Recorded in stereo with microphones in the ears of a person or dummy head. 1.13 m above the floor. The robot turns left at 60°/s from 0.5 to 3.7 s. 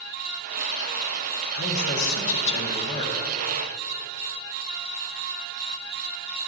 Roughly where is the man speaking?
Behind left.